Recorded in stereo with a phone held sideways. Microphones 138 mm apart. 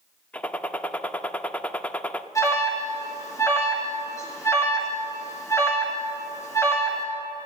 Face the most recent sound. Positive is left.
turn(degrees=20)  # may be behind; listen again after turning